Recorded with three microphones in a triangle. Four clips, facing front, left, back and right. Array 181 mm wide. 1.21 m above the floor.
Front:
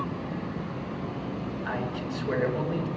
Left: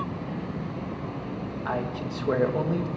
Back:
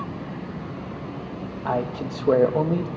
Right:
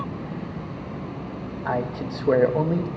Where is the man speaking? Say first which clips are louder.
Right 4 dB, back 9 dB; 145° right, 1.5 m.